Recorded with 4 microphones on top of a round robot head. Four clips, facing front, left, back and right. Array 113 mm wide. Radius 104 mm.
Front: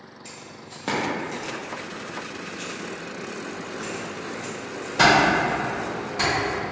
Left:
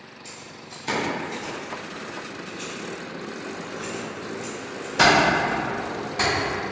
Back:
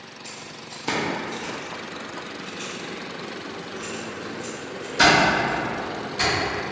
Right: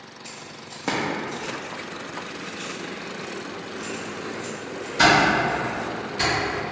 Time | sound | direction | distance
0.2 | keys jangling | 75° right | 1.1 m